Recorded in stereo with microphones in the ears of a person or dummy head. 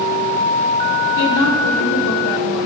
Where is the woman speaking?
65° left (ahead or behind), 1.1 m.